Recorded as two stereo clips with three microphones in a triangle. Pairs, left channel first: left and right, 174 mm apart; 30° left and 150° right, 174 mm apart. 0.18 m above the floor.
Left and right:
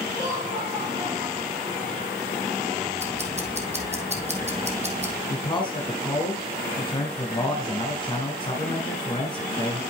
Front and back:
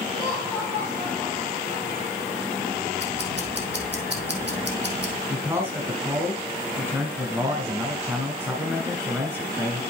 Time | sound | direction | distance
0.1 | laughter | 145° right | 4 m
3.0 | ticking | 140° right | 1.6 m
5.3 | a man speaking | 140° left | 1.3 m